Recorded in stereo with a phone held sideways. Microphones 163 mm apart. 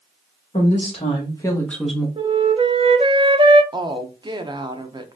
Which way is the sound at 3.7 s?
25° right (ahead or behind).